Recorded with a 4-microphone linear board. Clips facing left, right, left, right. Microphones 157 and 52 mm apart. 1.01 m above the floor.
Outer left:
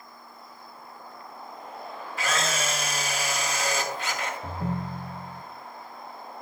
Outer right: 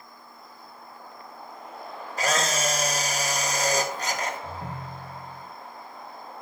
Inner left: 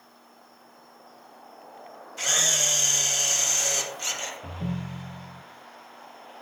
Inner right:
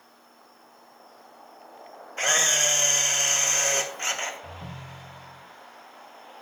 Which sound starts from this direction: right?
A camera shutter, at 2.2 s.